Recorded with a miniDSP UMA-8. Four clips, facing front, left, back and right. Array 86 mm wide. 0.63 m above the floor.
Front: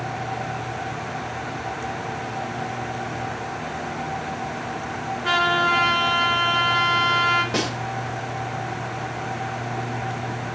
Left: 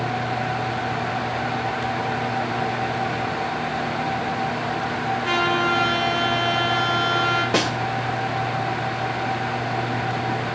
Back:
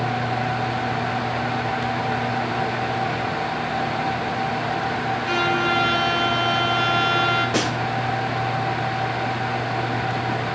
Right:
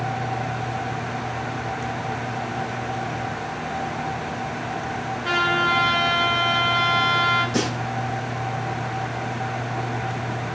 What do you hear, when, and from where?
5.2 s a trumpet: 15° right, 5 m
7.5 s a snare drum: 95° left, 2 m